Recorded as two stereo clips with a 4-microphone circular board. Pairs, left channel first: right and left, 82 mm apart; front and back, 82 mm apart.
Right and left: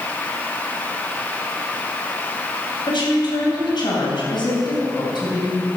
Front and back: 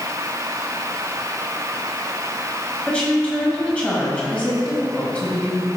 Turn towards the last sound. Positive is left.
turn(degrees=-75)